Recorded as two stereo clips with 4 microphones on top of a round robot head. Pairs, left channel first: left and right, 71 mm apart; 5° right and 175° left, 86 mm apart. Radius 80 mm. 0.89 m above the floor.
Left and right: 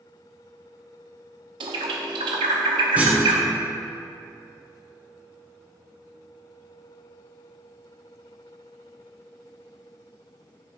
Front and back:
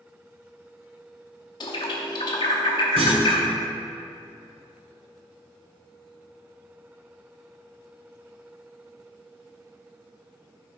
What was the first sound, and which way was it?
A bird, 60° right.